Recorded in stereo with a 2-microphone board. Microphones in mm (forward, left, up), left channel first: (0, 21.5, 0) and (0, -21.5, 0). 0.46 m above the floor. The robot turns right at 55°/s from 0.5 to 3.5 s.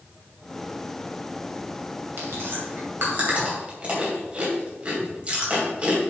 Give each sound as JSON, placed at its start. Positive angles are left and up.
{"t": 2.2, "sound": "chewing", "side_deg": -60, "distance_m": 3.0}